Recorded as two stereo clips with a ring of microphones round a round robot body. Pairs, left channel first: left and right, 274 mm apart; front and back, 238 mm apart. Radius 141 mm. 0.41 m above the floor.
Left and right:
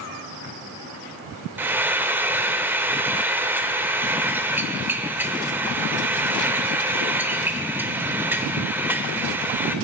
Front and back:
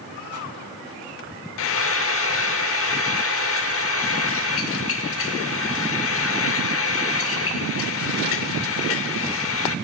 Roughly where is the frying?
Ahead.